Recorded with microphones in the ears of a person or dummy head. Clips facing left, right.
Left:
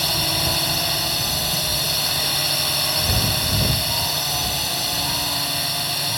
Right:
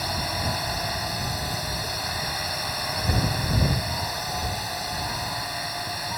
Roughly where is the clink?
No clink in this recording.